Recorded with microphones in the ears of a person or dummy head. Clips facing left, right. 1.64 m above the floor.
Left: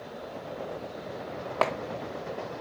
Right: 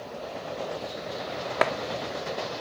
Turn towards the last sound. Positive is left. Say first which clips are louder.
# right 2 dB
turn(degrees=-20)  # may be behind; listen again after turning